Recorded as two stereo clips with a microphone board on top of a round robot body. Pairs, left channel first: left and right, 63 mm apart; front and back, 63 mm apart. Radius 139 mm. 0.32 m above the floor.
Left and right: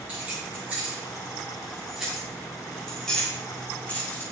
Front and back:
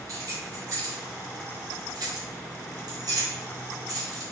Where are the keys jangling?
150° right, 3.5 m; by 4.2 s 155° left, 2.5 m.